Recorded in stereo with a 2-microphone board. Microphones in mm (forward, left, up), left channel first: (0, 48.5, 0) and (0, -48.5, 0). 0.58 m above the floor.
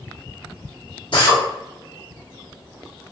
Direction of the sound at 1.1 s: 60° left (ahead or behind).